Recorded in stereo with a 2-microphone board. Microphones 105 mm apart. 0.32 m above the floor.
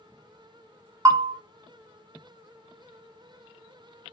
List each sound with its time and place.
1.1 s a bell: 35° right (ahead or behind), 0.5 m